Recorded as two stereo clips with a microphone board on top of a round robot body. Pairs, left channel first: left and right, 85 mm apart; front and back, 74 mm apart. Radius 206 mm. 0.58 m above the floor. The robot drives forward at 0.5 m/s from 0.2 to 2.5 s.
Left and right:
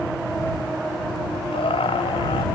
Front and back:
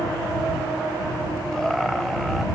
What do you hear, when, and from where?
1.5 s laughter: 85° left; by 2.5 s 95° left